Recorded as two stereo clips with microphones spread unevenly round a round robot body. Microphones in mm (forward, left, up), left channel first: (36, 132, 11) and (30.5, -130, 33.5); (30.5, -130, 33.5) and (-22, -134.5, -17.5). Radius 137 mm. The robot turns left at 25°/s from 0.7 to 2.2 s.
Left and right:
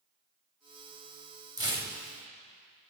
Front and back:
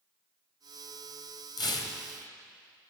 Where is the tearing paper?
15° right, 2 m; by 1.9 s 25° right, 2 m.